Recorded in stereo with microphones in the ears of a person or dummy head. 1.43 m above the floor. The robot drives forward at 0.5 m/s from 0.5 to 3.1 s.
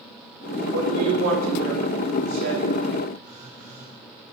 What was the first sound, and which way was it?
A woman speaking, 75° right (ahead or behind).